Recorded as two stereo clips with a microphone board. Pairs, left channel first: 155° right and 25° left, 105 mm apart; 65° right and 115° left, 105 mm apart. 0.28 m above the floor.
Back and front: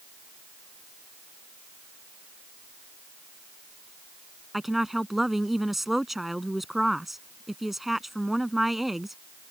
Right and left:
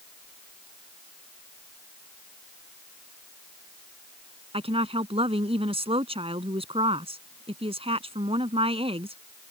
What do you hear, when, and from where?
4.5 s a woman speaking: 110° left